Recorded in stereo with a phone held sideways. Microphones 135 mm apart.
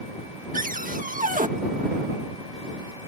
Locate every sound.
0.5 s a cupboard door: 85° right